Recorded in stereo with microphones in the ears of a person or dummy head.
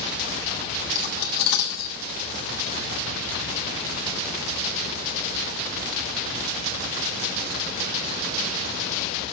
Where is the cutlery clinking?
55° left (ahead or behind), 1.8 m.